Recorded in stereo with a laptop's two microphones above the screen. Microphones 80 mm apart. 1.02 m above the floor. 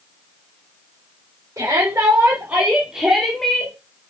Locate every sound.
1.6 s a shout: 35° right (ahead or behind), 3.5 m; by 3.8 s 15° left (ahead or behind), 2.5 m